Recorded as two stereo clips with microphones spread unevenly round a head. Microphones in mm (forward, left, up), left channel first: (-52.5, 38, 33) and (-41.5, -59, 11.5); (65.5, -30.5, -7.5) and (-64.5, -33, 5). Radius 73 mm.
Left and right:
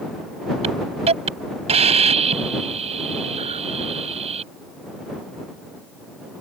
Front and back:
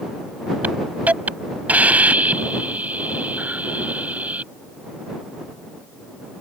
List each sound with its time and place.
0.6 s a hiss: 100° right